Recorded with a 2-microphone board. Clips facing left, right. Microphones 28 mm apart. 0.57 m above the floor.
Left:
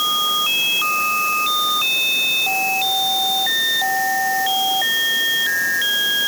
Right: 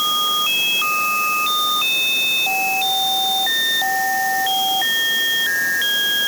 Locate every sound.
Only background noise.